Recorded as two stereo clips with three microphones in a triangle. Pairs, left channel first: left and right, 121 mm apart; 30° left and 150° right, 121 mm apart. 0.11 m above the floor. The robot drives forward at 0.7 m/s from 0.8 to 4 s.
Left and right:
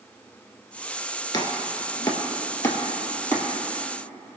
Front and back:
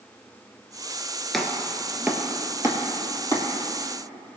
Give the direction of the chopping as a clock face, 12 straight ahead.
8 o'clock.